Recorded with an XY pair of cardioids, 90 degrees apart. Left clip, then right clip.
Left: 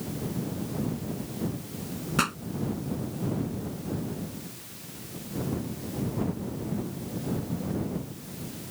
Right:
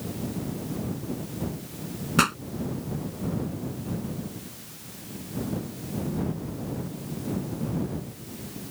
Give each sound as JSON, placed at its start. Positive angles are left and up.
{"t": 2.2, "sound": "a pop", "azimuth_deg": -30}